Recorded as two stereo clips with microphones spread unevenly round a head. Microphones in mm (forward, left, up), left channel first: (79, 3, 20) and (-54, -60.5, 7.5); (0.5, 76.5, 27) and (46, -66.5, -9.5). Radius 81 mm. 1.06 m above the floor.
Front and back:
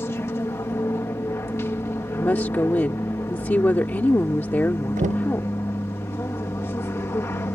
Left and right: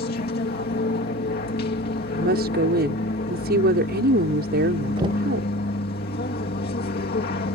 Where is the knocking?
125° right.